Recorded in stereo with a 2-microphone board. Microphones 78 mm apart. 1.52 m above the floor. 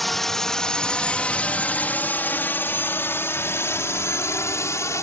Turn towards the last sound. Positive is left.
turn(degrees=40)  # may be behind; listen again after turning